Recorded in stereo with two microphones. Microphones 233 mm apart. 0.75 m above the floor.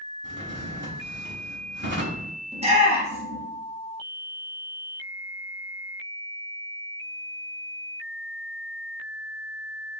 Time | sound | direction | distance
0.2 | a drawer | 50° right (ahead or behind) | 0.7 m
2.5 | a shout | 25° right (ahead or behind) | 0.9 m